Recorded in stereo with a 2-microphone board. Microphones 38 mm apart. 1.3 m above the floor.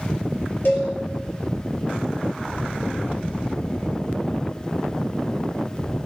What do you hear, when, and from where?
0.7 s a cowbell: 65° left (ahead or behind), 2 m